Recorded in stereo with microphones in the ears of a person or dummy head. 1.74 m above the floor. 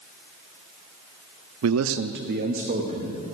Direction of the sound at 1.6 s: 75° right (ahead or behind).